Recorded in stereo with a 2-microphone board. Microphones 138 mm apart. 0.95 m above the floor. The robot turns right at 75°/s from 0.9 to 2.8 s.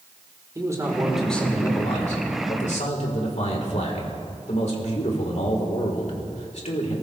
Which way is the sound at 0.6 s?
25° right.